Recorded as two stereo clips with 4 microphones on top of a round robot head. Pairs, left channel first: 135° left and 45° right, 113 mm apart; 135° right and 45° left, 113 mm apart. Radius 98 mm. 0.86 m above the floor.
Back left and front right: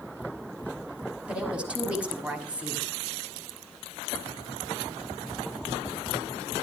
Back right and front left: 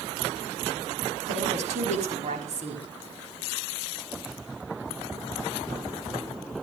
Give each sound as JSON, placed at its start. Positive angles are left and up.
{"t": 1.3, "sound": "a woman speaking", "azimuth_deg": 35, "distance_m": 6.0}